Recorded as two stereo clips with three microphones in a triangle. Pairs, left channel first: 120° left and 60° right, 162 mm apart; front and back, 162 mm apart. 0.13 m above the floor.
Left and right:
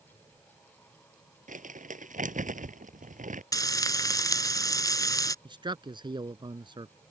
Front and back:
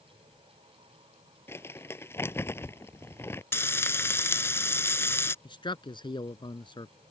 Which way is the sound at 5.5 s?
30° right.